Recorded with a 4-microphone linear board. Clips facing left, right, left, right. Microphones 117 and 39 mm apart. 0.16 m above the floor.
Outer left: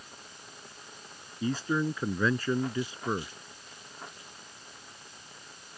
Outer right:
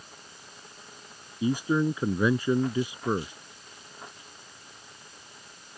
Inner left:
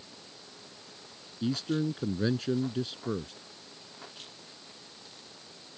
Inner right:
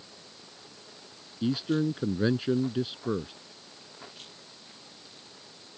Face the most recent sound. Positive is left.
turn(degrees=-15)  # may be behind; listen again after turning